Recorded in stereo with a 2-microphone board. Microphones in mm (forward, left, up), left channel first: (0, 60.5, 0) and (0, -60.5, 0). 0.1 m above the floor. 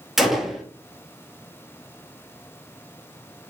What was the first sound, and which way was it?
A gunshot, centre (ahead or behind).